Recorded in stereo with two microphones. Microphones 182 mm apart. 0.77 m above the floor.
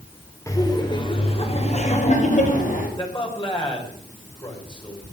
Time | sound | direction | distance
0.5 | laughter | 15° left (ahead or behind) | 3 m
3.0 | a man speaking | 30° left (ahead or behind) | 4 m